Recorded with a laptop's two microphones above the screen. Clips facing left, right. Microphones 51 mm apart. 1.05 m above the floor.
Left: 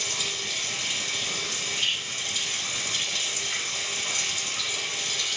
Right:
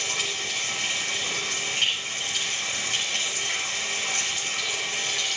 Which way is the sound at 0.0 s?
65° right (ahead or behind).